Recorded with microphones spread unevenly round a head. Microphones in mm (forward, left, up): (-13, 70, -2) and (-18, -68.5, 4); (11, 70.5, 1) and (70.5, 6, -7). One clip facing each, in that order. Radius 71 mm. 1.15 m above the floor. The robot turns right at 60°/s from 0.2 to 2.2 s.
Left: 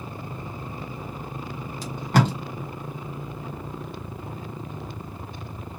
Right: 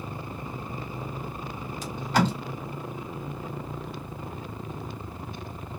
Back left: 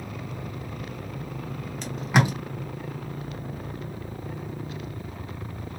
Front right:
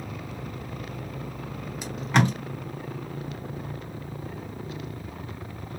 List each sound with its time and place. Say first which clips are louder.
1.8 s tape being pulled: left 2 dB, even; 35° left, 1.0 m; by 2.3 s 60° left, 1.0 m